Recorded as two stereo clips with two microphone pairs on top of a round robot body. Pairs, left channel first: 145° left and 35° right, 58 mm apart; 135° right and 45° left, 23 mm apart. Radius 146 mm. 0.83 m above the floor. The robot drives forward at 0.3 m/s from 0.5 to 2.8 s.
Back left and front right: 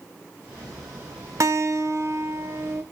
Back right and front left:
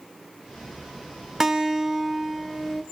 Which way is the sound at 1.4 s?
30° right.